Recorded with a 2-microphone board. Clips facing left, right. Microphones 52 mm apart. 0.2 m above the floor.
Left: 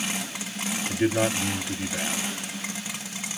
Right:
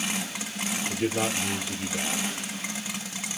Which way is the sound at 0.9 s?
45° left (ahead or behind).